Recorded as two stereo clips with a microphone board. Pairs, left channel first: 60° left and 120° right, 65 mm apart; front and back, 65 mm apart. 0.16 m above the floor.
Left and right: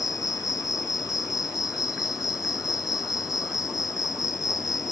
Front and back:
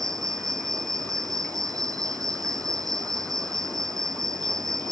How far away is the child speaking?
I don't hear a child speaking.